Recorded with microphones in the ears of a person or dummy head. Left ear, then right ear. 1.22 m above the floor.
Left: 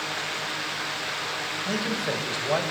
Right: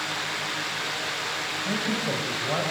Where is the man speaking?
35° left (ahead or behind), 6 m.